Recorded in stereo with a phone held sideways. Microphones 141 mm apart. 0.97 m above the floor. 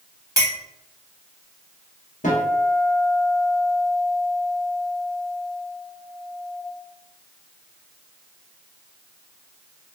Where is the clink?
25° right (ahead or behind), 0.8 m.